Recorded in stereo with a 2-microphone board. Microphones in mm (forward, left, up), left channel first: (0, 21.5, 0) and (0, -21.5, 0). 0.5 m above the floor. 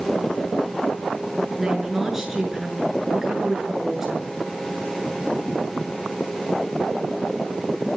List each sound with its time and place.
1.6 s a woman speaking: 5° right (ahead or behind), 7 m